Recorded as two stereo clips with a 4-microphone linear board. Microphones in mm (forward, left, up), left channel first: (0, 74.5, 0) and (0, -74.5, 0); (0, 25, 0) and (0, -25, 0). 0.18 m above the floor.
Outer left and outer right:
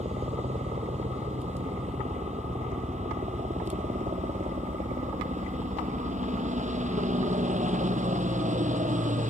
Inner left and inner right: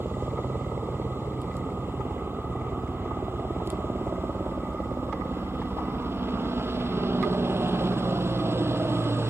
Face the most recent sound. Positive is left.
turn(degrees=-55)  # may be behind; listen again after turning